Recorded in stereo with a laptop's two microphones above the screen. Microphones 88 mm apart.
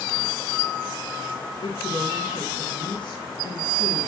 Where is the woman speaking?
60° left (ahead or behind), 1.6 m.